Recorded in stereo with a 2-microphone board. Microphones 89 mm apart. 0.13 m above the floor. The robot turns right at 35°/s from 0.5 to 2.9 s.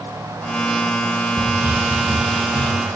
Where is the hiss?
25° right, 3.5 m; by 2.7 s 20° left, 3.5 m.